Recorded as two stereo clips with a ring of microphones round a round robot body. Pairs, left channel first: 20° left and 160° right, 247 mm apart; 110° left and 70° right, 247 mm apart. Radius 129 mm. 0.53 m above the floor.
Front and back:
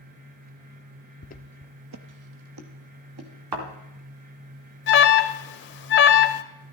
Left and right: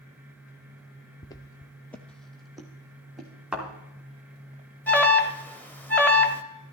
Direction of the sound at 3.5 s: 155° right.